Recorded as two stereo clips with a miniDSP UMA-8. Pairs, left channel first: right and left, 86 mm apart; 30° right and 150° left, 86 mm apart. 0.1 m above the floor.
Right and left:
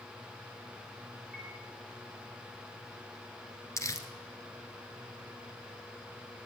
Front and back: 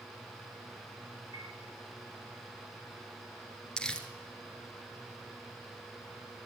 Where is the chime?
165° left, 6 m.